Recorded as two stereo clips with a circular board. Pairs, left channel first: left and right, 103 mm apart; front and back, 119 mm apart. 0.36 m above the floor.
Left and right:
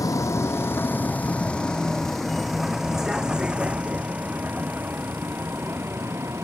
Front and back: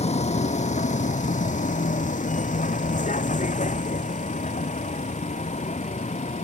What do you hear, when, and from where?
0.0 s a vehicle: 30° left; by 6.5 s 25° right